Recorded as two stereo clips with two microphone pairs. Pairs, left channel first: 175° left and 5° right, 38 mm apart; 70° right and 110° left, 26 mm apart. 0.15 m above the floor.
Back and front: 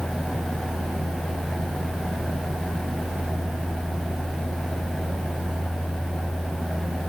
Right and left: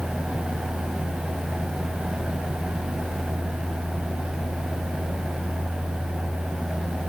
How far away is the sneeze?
No sneeze in this recording.